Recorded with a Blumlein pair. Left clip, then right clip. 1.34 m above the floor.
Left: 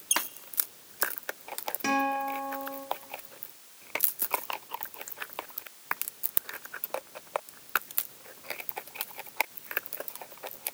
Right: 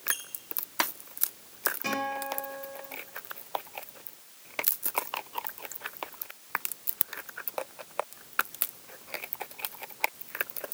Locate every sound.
0.1 s a squeak: 65° left, 1.0 m
1.8 s a guitar: 70° left, 4 m